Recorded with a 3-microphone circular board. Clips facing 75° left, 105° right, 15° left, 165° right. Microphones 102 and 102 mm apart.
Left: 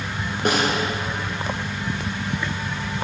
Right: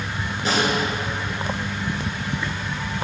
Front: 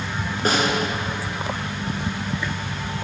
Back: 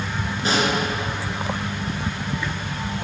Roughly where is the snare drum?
Ahead left.